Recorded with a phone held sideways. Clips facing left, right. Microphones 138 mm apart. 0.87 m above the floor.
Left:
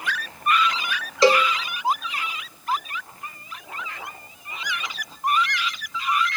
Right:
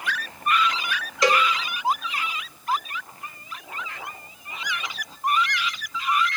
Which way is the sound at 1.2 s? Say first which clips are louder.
Left 4 dB; 30° left (ahead or behind).